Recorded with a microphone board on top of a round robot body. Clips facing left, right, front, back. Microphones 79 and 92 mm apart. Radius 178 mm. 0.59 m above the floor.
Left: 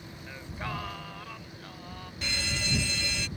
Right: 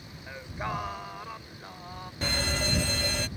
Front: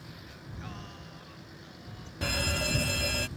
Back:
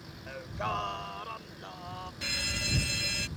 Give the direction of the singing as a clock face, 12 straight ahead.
5 o'clock.